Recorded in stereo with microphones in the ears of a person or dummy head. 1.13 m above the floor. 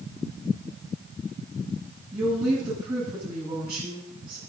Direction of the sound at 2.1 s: 20° right (ahead or behind).